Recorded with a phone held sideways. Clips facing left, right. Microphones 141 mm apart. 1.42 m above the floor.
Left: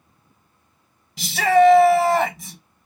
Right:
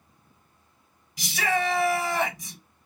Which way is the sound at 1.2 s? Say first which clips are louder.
Left 12 dB; 50° left (ahead or behind).